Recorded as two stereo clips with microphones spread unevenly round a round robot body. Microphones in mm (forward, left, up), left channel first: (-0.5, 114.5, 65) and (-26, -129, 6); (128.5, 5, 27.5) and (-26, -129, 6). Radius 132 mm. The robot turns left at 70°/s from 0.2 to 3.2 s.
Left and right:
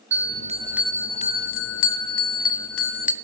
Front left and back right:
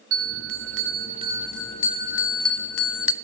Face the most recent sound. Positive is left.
turn(degrees=15)